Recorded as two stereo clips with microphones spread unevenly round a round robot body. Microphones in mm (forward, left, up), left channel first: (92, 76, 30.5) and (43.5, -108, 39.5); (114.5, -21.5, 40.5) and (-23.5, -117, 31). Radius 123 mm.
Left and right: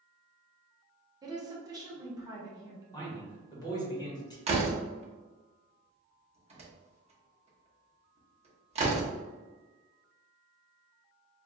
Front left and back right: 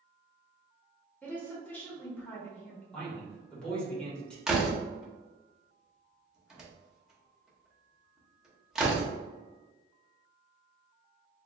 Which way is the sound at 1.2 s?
45° right.